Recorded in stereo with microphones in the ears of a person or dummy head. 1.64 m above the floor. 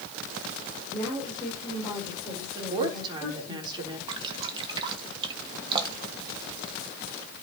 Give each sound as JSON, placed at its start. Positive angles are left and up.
{"t": 0.9, "sound": "a woman speaking", "side_deg": 15, "distance_m": 6.0}
{"t": 2.5, "sound": "a woman speaking", "side_deg": -30, "distance_m": 4.0}
{"t": 4.1, "sound": "dripping", "side_deg": -30, "distance_m": 1.9}